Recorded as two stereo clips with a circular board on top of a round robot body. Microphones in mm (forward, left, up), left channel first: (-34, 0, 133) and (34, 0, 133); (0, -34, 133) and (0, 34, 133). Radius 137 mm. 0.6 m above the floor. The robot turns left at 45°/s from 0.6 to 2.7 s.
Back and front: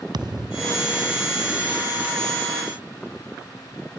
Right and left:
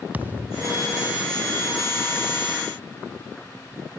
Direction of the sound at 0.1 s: 20° left.